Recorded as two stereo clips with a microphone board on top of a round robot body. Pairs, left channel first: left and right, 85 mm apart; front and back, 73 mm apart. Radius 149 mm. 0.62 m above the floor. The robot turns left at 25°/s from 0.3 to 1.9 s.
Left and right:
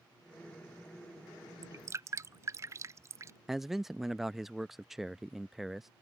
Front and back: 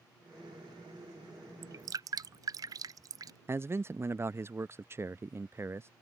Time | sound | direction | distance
1.6 | dripping | 140° right | ?
3.5 | a man speaking | 175° right | ?